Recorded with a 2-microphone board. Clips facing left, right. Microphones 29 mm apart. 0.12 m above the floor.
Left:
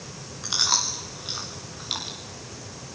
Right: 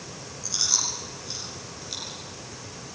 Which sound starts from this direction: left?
Chewing, at 0.4 s.